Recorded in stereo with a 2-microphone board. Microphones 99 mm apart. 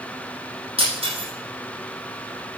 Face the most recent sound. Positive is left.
turn(degrees=-80)